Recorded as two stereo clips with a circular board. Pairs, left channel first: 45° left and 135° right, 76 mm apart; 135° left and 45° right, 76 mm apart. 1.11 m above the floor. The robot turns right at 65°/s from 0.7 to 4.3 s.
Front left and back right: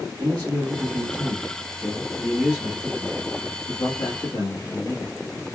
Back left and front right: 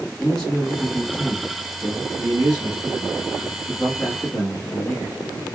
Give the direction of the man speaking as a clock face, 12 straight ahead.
5 o'clock.